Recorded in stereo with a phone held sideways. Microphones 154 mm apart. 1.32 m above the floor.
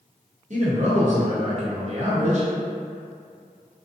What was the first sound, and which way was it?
A man speaking, 50° right (ahead or behind).